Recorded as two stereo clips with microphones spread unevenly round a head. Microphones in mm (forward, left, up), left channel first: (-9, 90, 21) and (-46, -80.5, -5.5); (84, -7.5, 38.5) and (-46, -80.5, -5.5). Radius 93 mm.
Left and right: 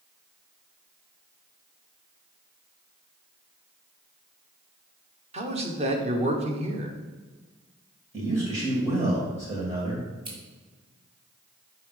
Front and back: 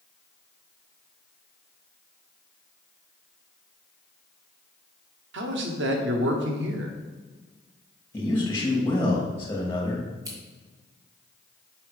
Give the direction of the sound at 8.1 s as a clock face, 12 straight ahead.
1 o'clock.